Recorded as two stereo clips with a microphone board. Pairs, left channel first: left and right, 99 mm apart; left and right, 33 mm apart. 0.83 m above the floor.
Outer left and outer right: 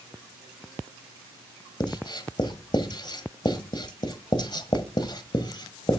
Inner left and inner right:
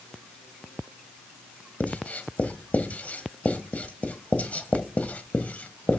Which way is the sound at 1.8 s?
45° left (ahead or behind).